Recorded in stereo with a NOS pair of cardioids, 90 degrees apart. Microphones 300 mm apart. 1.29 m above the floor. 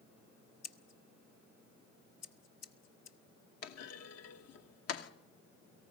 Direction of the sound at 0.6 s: 65° left.